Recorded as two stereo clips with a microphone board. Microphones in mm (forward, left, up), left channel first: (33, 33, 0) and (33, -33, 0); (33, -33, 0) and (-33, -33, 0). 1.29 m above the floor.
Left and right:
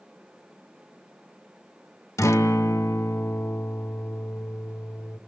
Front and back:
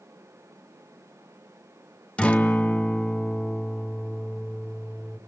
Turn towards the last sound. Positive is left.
turn(degrees=65)